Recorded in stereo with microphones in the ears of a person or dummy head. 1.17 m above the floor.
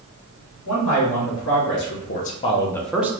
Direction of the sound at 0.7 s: 75° left (ahead or behind).